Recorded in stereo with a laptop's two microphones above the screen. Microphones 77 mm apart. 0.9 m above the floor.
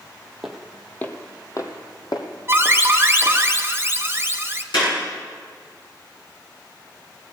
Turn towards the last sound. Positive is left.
turn(degrees=80)